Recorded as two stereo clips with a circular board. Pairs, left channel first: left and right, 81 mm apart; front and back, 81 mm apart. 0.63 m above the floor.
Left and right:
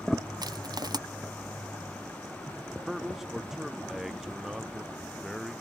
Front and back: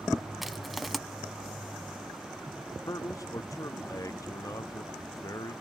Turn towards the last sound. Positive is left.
turn(degrees=-5)